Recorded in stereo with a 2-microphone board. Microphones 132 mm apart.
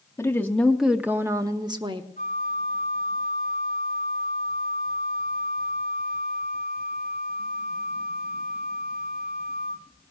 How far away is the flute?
About 1.6 m.